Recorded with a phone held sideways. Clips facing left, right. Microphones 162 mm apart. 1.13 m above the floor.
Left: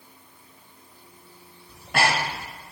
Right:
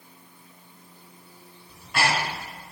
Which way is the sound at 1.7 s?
60° left (ahead or behind).